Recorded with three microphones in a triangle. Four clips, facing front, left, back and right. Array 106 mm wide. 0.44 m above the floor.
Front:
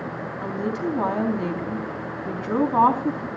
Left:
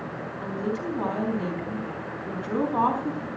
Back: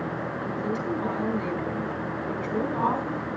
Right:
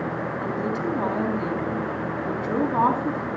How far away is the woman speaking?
About 4 m.